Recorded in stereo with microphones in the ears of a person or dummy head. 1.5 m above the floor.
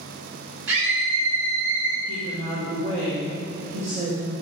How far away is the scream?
About 4 m.